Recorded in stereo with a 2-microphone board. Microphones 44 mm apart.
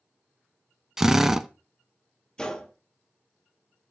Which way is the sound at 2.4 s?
20° left (ahead or behind).